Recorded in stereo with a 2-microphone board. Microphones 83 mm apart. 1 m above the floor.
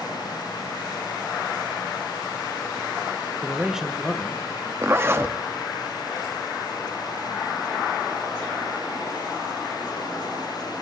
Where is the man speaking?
25° right (ahead or behind), 0.6 m; by 4.7 s 20° left (ahead or behind), 1.0 m.